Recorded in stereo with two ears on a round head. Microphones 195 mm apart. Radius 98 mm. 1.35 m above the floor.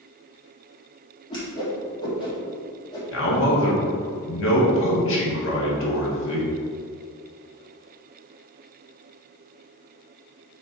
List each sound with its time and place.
1.3 s a whoosh: 20° left (ahead or behind), 1.9 m
3.1 s a man speaking: 60° left (ahead or behind), 2.0 m